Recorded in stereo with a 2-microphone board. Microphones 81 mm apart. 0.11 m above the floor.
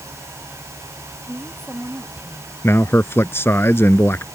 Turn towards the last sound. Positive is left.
turn(degrees=30)  # may be behind; listen again after turning